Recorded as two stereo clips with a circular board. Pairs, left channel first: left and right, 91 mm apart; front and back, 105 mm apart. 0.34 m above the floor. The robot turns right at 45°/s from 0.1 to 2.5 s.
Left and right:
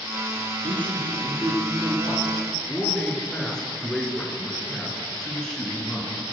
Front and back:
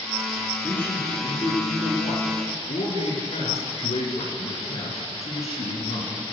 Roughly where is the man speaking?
Right.